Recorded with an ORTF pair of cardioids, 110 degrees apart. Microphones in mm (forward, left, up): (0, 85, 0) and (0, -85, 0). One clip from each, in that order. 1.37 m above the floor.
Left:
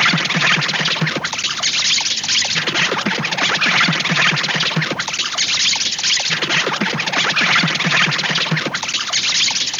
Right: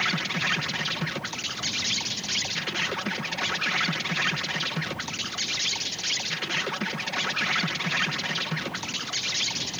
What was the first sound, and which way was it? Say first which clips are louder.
An insect: left 11 dB; 55° left.